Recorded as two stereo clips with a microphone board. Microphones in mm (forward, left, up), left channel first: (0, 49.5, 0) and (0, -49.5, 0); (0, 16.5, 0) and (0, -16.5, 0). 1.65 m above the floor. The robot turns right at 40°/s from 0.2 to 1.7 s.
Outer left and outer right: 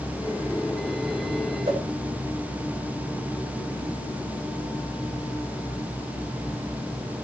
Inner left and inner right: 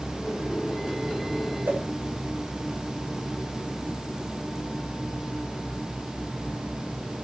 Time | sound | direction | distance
1.6 | a whoosh | 70° right (ahead or behind) | 3 m